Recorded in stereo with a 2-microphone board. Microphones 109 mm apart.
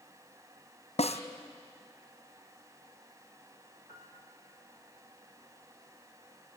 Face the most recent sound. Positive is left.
turn(degrees=-40)  # may be behind; listen again after turning